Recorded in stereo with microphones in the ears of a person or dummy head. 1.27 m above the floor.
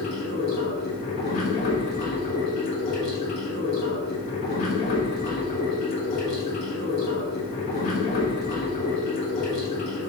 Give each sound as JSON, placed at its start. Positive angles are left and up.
{"t": 0.0, "sound": "running water", "side_deg": 35, "distance_m": 1.1}